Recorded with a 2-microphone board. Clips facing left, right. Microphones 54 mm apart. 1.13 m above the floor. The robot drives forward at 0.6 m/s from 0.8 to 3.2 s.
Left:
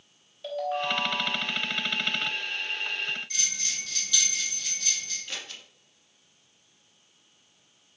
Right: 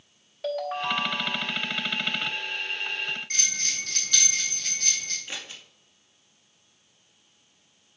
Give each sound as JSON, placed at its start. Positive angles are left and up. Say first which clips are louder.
{"t": 0.4, "sound": "a ringtone", "louder": "right 1 dB", "side_deg": -70, "distance_m": 2.5}
{"t": 3.3, "sound": "a bell", "louder": "right 3 dB", "side_deg": -55, "distance_m": 3.0}
{"t": 5.3, "sound": "scissors", "louder": "right 1 dB", "side_deg": -20, "distance_m": 2.5}